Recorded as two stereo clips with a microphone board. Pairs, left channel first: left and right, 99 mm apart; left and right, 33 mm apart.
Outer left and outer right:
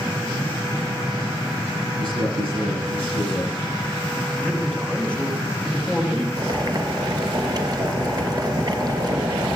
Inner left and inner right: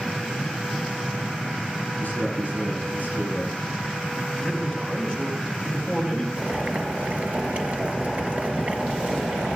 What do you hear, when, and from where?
2.0 s a man speaking: 60° left (ahead or behind), 9.5 m
4.3 s a man speaking: 15° left (ahead or behind), 3.5 m
6.4 s boiling: 40° right (ahead or behind), 3 m